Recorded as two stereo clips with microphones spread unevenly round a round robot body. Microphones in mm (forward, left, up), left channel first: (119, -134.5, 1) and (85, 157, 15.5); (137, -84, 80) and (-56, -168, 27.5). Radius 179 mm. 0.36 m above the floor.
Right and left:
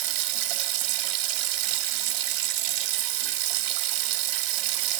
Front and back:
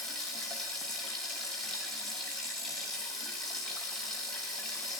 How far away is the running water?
About 0.7 m.